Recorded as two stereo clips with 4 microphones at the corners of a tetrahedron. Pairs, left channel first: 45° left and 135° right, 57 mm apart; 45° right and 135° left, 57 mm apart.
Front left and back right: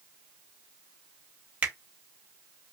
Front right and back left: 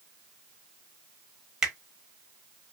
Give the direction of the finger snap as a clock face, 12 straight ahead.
5 o'clock.